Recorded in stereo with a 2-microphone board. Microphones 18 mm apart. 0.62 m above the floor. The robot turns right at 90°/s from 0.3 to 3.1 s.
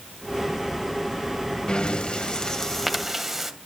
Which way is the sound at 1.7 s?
55° left.